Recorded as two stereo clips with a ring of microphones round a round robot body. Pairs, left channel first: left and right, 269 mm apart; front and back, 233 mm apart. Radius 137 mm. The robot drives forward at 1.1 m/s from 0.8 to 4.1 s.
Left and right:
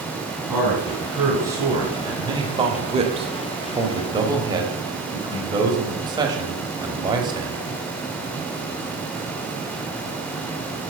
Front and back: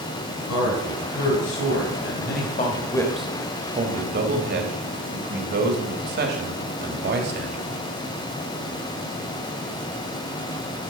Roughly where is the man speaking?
Ahead.